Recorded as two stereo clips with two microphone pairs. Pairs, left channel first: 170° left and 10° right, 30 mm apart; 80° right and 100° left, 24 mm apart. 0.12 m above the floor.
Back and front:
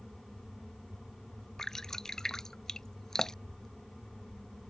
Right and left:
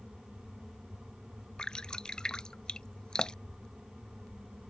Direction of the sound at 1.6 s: 125° right.